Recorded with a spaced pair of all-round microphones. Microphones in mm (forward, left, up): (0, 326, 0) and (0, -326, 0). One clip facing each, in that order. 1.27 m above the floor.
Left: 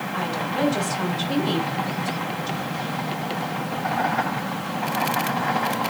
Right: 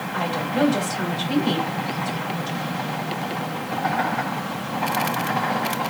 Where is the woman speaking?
75° right (ahead or behind), 2.5 m.